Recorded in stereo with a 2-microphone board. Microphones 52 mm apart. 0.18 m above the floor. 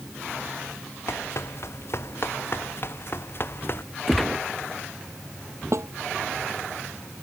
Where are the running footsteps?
55° left (ahead or behind); by 3.8 s 45° left (ahead or behind).